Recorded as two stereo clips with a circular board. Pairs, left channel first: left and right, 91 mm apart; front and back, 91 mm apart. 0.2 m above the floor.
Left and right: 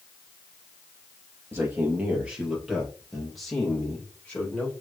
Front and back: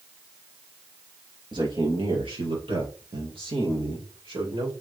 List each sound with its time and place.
1.5 s a man speaking: 150° right, 3.5 m; by 4.7 s 170° left, 6 m